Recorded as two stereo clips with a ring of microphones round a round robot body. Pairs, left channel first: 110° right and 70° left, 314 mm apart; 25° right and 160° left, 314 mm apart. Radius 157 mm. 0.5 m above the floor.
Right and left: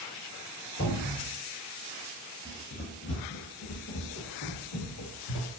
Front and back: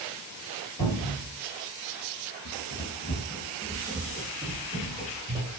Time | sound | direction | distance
0.8 | a cupboard door | 80° right | 1.5 m
2.5 | running footsteps | 35° right | 0.6 m